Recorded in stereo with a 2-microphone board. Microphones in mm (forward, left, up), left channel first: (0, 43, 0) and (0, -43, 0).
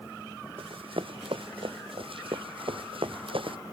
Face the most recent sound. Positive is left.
turn(degrees=-80)